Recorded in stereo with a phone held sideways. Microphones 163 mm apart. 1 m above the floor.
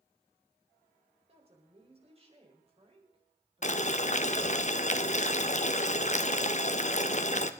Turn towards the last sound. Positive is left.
turn(degrees=45)  # may be behind; listen again after turning